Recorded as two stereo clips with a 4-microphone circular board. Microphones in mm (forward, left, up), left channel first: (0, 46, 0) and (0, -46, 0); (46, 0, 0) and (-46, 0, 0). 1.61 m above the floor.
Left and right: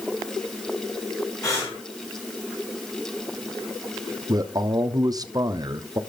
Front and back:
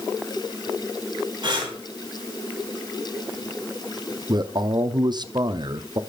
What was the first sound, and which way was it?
Breathing, 140° left.